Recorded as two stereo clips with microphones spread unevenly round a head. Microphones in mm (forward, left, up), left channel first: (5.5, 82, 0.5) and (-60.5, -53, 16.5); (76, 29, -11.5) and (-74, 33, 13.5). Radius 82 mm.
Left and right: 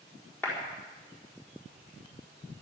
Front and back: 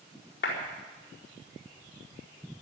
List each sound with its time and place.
0.4 s a clap: 15° right, 4.5 m